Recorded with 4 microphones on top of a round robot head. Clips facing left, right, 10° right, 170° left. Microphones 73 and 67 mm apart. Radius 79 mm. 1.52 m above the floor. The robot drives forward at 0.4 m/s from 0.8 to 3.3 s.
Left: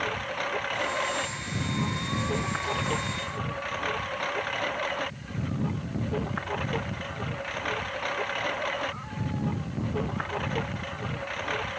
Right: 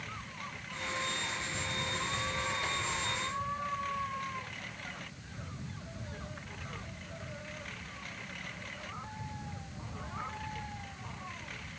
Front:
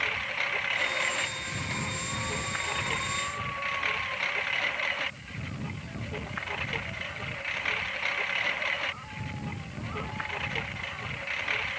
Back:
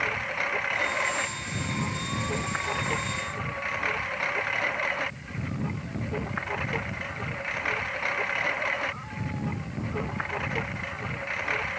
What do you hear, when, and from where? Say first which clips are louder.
0.0 s a lawn mower: left 13 dB, back 2 dB; 105° left